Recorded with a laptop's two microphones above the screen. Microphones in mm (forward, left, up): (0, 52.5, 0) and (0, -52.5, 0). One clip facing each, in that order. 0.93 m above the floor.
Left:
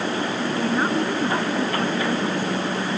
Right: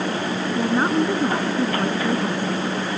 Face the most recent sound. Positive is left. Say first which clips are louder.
# right 3 dB
turn(degrees=-15)  # may be behind; listen again after turning